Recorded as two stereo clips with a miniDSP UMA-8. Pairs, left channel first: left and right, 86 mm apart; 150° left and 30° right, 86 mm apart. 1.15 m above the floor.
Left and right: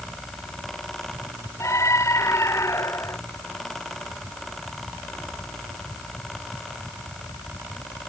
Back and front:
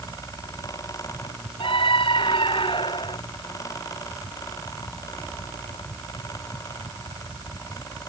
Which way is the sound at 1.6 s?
145° left.